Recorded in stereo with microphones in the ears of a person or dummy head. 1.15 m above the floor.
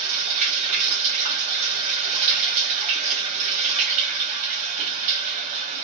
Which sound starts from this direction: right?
Running water, at 0.0 s.